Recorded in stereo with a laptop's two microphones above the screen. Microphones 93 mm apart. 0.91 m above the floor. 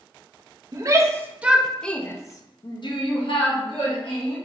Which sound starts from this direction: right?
A shout, at 0.7 s.